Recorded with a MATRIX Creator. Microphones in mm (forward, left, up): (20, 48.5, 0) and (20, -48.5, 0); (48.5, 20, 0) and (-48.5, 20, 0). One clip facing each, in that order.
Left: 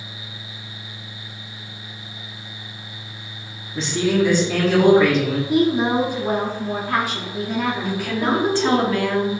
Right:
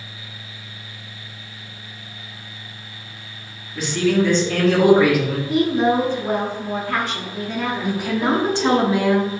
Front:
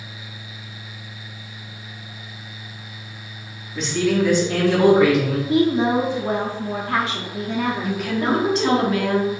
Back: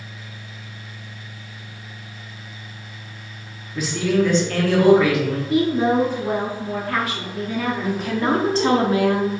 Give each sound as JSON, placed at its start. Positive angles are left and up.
{"t": 3.8, "sound": "a man speaking", "azimuth_deg": 105, "distance_m": 1.0}
{"t": 5.5, "sound": "a woman speaking", "azimuth_deg": 20, "distance_m": 0.6}
{"t": 7.8, "sound": "a woman speaking", "azimuth_deg": -145, "distance_m": 0.7}